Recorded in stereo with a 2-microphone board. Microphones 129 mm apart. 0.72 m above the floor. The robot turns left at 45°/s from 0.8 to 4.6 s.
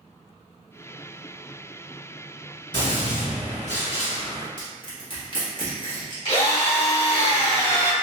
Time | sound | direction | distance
2.7 | a gunshot | 145° left | 1.7 m
4.6 | crushing | 40° left (ahead or behind) | 1.3 m
6.2 | a drill | 55° left (ahead or behind) | 1.4 m